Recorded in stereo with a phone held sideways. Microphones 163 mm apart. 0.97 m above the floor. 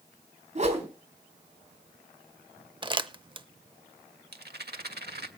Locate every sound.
0.6 s a whoosh: 45° right (ahead or behind), 4 m
2.8 s crumpling: 30° right (ahead or behind), 0.7 m
4.3 s a rattle: 80° right, 1.6 m